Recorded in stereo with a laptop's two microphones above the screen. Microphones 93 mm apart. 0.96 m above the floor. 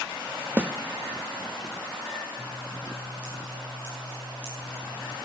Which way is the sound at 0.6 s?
15° right (ahead or behind).